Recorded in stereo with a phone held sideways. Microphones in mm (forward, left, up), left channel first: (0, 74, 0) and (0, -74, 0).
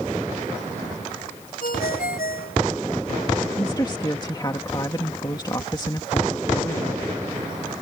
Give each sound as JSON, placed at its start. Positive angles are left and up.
{"t": 1.6, "sound": "a ringtone", "side_deg": 75}
{"t": 3.6, "sound": "a woman speaking", "side_deg": 30}